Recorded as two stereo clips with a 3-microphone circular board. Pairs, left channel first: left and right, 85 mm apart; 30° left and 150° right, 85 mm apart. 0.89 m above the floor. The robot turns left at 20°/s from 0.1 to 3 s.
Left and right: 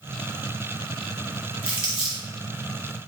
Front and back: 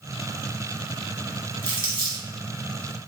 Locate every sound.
1.6 s crumpling: 165° right, 1.7 m; by 2.2 s 175° right, 1.7 m